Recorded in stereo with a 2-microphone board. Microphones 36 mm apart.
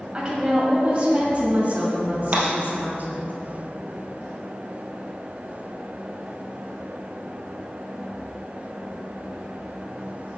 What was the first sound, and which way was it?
A woman speaking, 30° right (ahead or behind).